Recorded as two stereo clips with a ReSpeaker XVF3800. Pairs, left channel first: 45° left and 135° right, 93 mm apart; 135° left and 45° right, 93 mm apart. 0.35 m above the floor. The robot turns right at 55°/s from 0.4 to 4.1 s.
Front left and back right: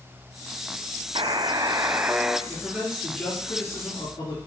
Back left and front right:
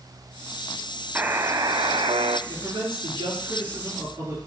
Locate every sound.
1.1 s a buzzer: 115° right, 0.5 m; by 2.4 s 50° right, 0.5 m
2.5 s a man speaking: 75° right, 5.5 m; by 4.4 s 15° left, 5.5 m